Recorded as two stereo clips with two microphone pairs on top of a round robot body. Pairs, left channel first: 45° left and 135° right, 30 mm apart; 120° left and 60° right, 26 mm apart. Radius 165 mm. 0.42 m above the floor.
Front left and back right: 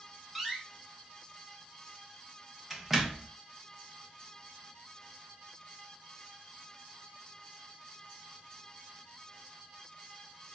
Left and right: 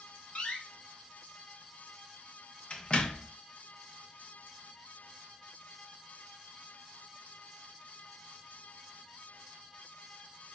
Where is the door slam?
150° left, 0.8 m.